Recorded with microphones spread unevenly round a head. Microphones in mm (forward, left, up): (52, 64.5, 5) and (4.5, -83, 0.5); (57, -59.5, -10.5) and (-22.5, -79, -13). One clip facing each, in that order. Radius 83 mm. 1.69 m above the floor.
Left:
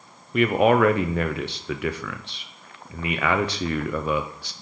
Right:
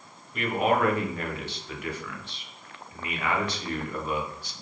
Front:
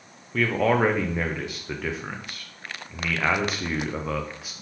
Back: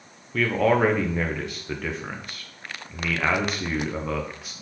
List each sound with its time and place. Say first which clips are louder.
0.3 s a man speaking: left 7 dB, back 1 dB; 100° left, 0.6 m